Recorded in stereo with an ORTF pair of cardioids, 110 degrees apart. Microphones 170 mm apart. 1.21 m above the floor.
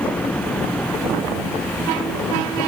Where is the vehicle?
5° left.